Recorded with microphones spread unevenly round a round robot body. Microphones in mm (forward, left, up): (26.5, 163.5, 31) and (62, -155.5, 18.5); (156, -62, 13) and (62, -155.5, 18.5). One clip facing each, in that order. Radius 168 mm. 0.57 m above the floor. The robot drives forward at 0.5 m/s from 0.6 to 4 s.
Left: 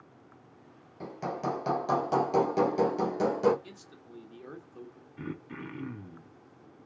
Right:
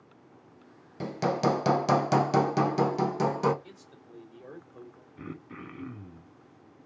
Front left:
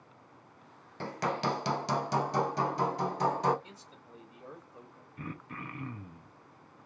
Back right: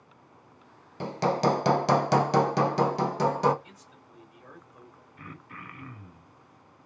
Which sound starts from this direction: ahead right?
Hammering, at 1.0 s.